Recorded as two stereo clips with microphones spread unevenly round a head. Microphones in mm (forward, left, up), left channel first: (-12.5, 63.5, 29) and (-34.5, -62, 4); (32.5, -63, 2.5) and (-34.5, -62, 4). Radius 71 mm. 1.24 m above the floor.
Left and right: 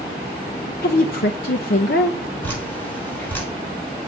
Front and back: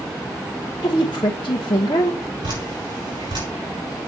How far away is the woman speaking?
About 0.7 m.